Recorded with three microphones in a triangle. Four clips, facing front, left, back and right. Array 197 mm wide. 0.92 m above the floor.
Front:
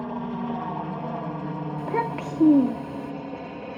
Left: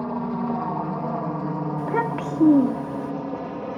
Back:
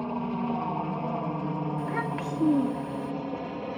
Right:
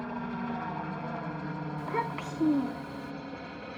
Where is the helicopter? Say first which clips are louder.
Left 9 dB, even; 80° left; by 3.8 s 95° left.